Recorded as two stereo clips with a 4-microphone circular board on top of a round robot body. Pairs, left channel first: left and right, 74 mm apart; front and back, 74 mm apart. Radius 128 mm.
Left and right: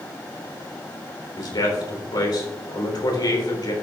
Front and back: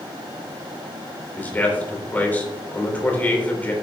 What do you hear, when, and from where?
1.4 s a man speaking: 65° left, 4 m